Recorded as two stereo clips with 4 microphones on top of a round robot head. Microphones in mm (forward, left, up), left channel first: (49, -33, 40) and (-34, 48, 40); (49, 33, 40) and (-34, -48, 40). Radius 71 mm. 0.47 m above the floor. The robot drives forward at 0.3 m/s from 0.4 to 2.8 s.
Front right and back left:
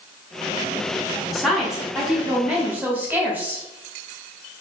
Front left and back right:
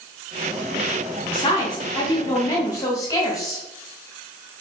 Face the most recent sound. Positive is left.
turn(degrees=75)